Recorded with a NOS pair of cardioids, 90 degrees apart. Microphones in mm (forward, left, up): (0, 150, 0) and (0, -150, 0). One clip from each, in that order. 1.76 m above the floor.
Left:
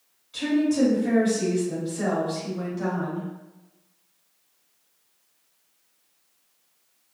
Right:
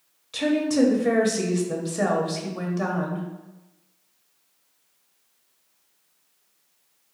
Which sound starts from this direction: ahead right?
A woman speaking, at 0.3 s.